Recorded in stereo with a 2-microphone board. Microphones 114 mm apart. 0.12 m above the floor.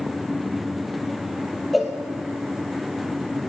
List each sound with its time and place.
1.7 s a cowbell: centre (ahead or behind), 0.6 m